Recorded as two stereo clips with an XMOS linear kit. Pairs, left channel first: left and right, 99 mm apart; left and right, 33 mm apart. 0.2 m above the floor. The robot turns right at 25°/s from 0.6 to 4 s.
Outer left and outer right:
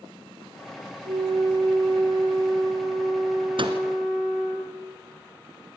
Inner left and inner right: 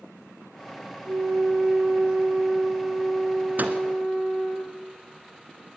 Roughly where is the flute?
Right.